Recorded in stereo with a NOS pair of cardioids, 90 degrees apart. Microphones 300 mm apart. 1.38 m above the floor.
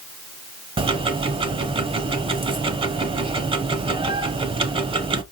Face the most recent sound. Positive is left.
turn(degrees=-20)